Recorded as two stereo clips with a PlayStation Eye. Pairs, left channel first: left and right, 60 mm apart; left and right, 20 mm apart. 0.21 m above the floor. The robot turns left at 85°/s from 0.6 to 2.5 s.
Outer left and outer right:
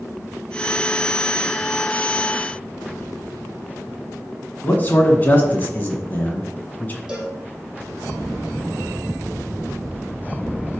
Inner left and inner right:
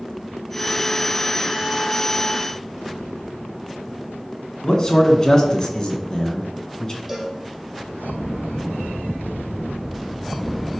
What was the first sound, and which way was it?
A man speaking, 30° left (ahead or behind).